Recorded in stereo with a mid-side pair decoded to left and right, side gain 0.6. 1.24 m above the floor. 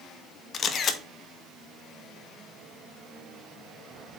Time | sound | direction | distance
0.5 | a camera shutter | 45° left | 1.2 m